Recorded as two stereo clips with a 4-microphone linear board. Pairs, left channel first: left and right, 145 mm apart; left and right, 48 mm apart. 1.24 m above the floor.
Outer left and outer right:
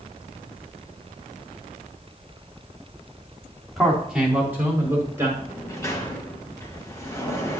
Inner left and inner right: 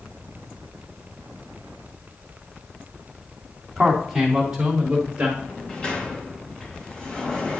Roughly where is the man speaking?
Centre.